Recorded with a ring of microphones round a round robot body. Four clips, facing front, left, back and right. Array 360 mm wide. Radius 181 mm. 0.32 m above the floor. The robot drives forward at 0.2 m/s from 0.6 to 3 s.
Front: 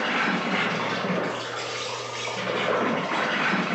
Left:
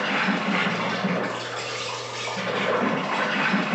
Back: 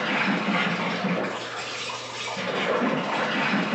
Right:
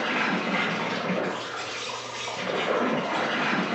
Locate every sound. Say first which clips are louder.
0.0 s an insect: left 2 dB, even; 55° left, 1.8 m; by 3.8 s 85° left, 1.7 m